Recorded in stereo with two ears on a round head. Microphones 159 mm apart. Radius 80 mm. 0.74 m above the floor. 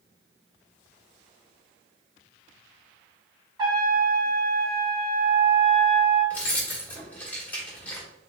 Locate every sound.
3.6 s a trumpet: 25° right (ahead or behind), 1.1 m
6.3 s keys jangling: 10° left (ahead or behind), 1.3 m